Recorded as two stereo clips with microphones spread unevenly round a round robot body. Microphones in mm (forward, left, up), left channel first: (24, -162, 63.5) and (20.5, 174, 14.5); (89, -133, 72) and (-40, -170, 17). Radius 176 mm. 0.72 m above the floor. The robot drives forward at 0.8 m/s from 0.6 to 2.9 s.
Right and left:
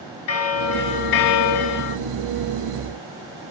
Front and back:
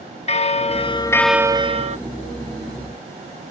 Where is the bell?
35° right, 0.8 m; by 2.0 s 140° right, 0.7 m.